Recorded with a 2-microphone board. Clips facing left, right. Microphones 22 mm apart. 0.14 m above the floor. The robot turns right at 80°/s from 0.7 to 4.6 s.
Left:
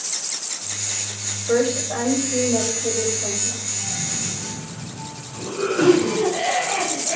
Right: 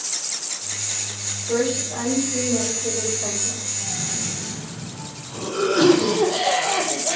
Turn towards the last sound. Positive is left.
turn(degrees=-95)